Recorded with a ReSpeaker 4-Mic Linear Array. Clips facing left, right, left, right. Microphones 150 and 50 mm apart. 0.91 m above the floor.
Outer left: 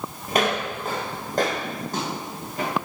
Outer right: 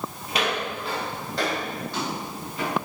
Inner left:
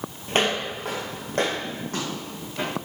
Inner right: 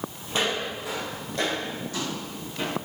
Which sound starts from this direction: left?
Footsteps, at 0.3 s.